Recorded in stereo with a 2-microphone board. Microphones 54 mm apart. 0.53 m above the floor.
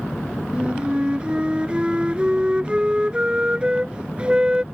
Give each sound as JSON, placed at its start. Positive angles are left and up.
{"t": 0.5, "sound": "a flute", "side_deg": -20}